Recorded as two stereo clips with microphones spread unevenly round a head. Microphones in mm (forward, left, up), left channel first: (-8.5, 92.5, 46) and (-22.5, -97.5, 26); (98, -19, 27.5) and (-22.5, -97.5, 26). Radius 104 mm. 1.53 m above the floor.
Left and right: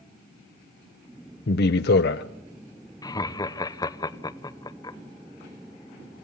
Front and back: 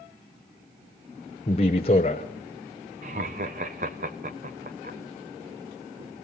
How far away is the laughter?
About 0.9 m.